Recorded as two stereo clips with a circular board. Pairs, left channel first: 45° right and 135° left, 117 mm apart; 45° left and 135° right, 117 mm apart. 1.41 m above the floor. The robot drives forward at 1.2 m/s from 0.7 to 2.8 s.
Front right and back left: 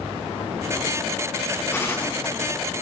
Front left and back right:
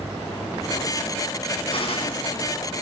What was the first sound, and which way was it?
A gunshot, 20° left.